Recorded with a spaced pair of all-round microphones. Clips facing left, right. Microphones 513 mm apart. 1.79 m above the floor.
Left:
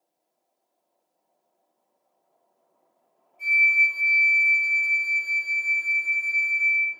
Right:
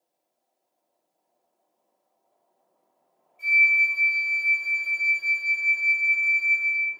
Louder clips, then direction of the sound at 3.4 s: Even; 40° right (ahead or behind).